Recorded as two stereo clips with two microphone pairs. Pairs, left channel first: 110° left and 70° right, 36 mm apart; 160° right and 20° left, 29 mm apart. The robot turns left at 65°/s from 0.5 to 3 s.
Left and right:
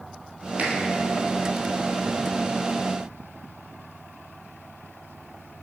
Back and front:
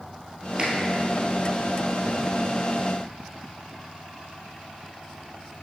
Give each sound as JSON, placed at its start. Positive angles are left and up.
{"t": 0.6, "sound": "a finger snap", "azimuth_deg": -25, "distance_m": 1.9}